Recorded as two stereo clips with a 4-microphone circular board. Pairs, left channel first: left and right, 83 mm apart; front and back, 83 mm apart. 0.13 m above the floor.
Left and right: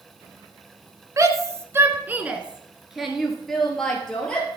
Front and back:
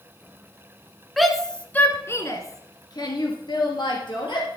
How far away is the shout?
About 1.3 m.